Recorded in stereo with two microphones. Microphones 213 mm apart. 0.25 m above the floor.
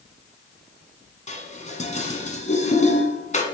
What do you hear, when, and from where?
1.3 s dishes clattering: 35° left (ahead or behind), 1.4 m